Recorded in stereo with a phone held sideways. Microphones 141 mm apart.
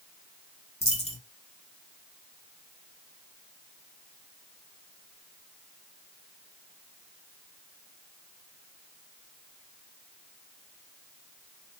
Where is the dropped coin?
50° left (ahead or behind), 1.1 m.